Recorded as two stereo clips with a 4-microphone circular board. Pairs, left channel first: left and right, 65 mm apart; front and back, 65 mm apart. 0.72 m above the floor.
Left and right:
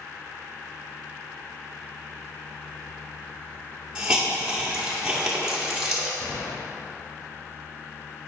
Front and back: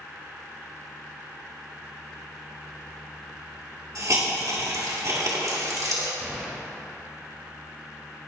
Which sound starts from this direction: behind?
A hiss, at 4.0 s.